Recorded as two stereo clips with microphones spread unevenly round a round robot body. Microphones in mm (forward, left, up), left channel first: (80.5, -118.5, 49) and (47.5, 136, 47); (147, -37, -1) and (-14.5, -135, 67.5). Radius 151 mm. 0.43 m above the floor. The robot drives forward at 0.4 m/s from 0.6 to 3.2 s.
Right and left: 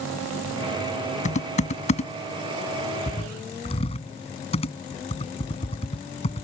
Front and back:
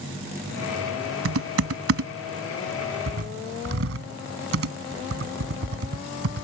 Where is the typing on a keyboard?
150° right; by 6.4 s 155° right.